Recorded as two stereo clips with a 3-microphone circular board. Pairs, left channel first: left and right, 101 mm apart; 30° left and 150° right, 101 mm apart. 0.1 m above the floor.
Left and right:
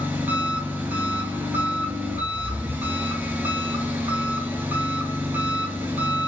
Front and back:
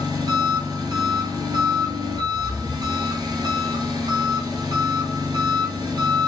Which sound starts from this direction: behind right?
An engine running, at 0.0 s.